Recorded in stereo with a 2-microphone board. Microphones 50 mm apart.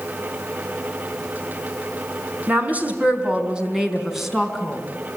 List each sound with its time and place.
2.5 s a woman speaking: 35° right (ahead or behind), 4 m; by 4.8 s 5° left (ahead or behind), 4.5 m